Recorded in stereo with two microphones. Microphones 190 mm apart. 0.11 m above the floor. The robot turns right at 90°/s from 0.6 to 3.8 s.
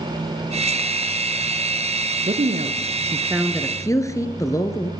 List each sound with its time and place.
2.3 s a woman speaking: 110° right, 1.4 m; by 4.9 s 25° left, 1.4 m